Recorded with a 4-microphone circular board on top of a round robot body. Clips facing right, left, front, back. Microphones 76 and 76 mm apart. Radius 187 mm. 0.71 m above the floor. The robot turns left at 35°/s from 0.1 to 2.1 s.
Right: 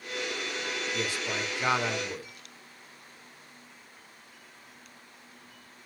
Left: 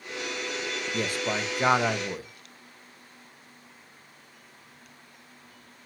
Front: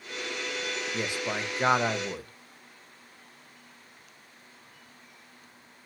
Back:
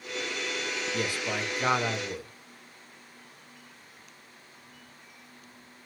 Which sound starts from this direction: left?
A man speaking, at 0.9 s.